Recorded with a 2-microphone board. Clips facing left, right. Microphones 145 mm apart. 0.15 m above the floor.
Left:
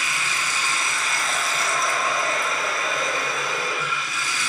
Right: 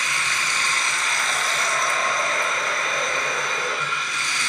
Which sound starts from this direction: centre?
Running water, at 0.0 s.